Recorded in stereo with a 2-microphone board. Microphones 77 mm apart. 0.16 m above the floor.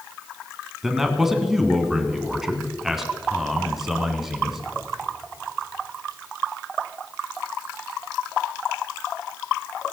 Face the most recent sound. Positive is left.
turn(degrees=-5)  # may be behind; listen again after turning